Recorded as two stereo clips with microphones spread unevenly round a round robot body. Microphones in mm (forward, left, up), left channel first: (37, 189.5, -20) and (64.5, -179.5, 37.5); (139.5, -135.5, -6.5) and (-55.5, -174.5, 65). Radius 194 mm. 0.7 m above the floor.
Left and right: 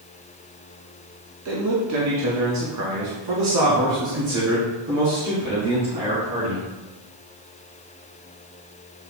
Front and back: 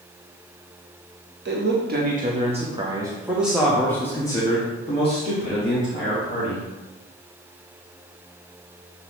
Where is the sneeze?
I don't hear a sneeze.